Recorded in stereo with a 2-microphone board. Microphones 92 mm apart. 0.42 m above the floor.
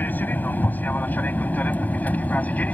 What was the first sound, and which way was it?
An aircraft, 20° left (ahead or behind).